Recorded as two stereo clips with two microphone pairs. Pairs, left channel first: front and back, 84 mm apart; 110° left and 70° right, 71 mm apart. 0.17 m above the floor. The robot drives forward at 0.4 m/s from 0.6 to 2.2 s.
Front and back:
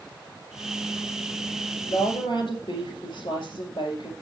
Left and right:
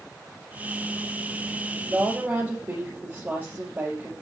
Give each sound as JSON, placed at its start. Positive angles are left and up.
{"t": 1.9, "sound": "a woman speaking", "azimuth_deg": -5, "distance_m": 4.5}